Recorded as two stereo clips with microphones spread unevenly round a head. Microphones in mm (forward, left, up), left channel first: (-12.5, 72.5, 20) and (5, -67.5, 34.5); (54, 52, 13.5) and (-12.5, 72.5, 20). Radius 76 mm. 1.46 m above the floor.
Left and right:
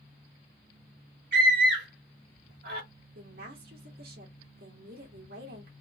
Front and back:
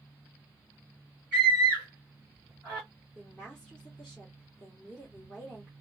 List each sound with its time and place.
1.3 s a scream: 110° right, 1.4 m
3.1 s a woman speaking: 105° right, 1.7 m